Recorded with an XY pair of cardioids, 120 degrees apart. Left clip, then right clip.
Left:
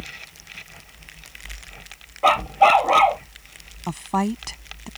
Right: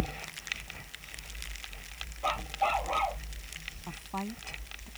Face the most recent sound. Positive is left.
turn(degrees=70)